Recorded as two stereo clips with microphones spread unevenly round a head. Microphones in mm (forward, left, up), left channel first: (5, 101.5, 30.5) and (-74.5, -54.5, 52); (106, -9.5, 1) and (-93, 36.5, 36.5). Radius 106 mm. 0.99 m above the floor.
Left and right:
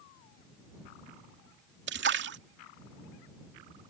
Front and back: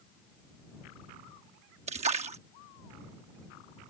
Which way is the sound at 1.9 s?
130° right.